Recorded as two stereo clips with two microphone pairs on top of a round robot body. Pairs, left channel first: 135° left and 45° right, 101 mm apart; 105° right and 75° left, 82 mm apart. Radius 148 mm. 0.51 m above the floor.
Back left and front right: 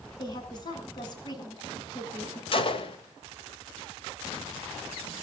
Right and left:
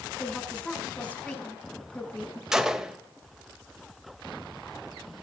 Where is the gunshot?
160° left, 2.5 m.